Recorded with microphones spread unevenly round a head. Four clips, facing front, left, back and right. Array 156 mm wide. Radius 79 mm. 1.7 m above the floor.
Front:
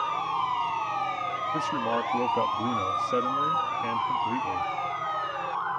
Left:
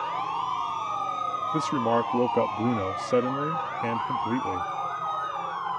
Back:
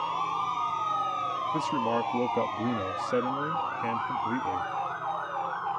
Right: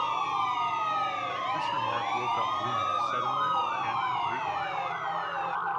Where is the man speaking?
100° left.